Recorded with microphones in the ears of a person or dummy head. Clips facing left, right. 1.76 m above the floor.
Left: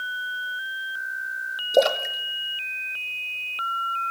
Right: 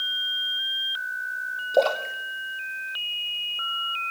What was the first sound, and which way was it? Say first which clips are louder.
A splash: left 2 dB; 25° left (ahead or behind).